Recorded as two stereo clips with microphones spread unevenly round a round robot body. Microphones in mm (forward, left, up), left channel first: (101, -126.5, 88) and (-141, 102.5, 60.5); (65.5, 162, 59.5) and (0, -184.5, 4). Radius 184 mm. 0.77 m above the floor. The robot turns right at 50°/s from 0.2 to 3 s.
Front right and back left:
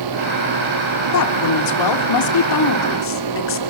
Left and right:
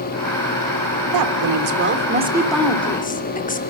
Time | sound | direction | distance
1.1 | a woman speaking | 85° right | 3 m